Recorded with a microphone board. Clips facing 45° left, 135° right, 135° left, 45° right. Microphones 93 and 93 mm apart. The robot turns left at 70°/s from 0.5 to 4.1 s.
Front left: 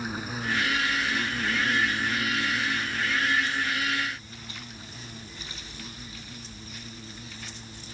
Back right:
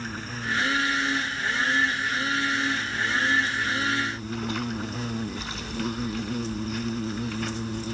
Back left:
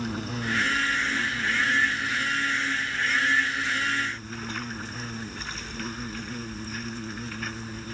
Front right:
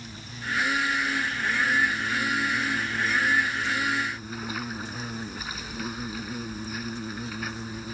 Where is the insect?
125° left; by 7.9 s 125° right.